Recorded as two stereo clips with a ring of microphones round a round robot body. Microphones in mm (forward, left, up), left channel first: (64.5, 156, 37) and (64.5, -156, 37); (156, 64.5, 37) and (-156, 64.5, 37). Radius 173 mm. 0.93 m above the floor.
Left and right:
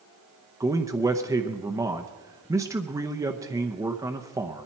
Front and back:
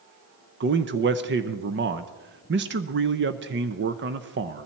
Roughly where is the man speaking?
Behind.